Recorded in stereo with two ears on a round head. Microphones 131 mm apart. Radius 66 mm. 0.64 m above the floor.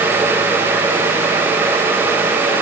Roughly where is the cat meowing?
No cat meowing in this recording.